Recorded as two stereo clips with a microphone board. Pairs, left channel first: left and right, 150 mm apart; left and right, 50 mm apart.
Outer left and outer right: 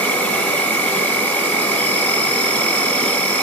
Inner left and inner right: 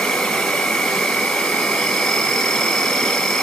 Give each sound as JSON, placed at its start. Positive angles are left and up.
{"t": 0.0, "sound": "an insect", "side_deg": 10, "distance_m": 1.7}